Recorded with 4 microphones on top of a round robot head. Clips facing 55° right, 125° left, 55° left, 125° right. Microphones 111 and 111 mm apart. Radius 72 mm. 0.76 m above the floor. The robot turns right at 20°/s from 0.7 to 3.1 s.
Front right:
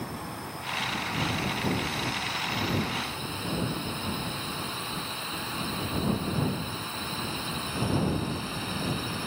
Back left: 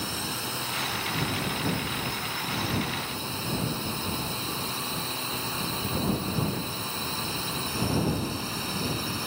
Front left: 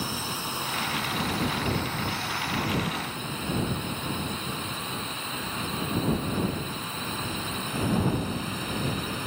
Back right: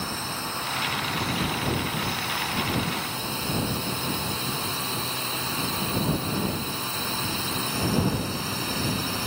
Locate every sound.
0.0 s a drone: 130° left; by 9.3 s straight behind